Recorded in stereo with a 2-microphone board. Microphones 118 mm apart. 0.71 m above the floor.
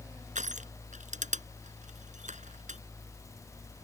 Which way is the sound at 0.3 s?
75° right (ahead or behind).